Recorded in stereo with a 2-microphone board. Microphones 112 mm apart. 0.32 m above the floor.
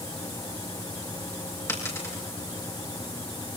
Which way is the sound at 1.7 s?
25° left (ahead or behind).